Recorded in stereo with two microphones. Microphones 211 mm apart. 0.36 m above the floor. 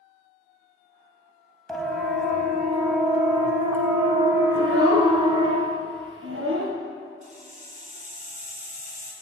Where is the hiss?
35° right (ahead or behind), 3.5 m.